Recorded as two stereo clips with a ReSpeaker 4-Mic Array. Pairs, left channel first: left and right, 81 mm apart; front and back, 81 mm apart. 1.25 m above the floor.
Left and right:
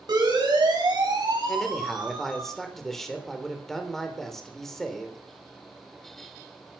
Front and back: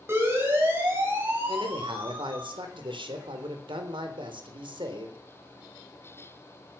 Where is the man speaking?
175° left, 3.5 m.